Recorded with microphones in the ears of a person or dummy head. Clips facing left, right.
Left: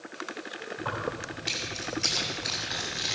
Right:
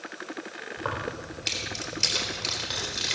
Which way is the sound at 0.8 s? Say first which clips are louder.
Right 1 dB; 75° right (ahead or behind).